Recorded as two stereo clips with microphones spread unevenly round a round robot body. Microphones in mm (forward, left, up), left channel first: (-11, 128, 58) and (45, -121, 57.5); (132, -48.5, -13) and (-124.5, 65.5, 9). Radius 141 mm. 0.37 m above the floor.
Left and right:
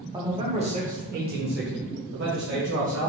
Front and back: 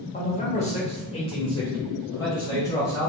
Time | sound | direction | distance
0.1 | a man speaking | 15° right | 1.1 m